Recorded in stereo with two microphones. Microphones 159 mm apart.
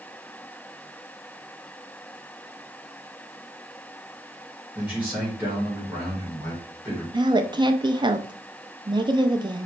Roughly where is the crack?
No crack in this recording.